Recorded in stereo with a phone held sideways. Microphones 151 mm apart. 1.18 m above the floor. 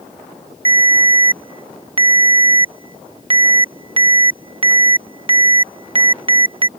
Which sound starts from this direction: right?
A ringtone, at 0.7 s.